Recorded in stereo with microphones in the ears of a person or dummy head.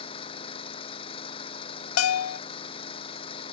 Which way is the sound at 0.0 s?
35° left (ahead or behind).